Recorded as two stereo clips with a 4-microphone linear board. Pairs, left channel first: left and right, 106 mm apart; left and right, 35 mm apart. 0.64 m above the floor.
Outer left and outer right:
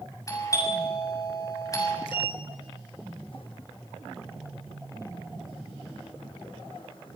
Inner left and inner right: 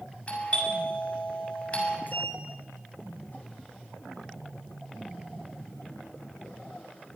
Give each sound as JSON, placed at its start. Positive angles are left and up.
{"t": 0.3, "sound": "a doorbell", "side_deg": 30, "distance_m": 7.0}
{"t": 2.1, "sound": "a sliding door", "side_deg": 55, "distance_m": 3.0}